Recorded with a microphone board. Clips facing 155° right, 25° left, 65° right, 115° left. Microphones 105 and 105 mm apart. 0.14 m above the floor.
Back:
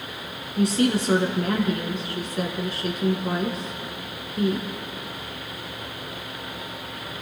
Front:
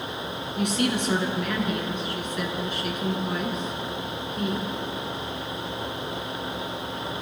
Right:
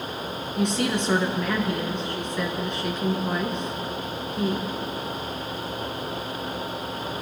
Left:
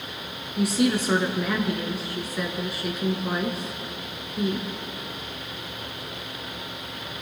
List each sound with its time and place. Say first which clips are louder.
0.6 s a woman speaking: back 4 dB, left 2 dB; 170° right, 1.8 m